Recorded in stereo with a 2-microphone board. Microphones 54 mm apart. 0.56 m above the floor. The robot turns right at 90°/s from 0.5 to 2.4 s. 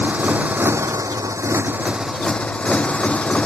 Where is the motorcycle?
150° right; by 3.5 s 20° left.